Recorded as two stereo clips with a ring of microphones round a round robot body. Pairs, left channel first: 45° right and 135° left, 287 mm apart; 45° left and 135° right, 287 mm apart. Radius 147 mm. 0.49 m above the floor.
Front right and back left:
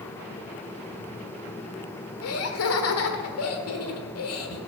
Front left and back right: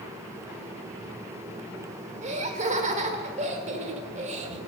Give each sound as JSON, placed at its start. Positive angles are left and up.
{"t": 2.2, "sound": "laughter", "azimuth_deg": -70, "distance_m": 1.5}